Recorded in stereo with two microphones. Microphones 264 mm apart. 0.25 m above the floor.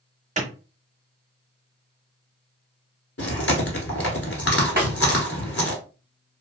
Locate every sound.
0.4 s a clap: 30° right (ahead or behind), 1.0 m
3.2 s chewing: 60° left (ahead or behind), 0.9 m
4.8 s a snare drum: 35° right (ahead or behind), 1.8 m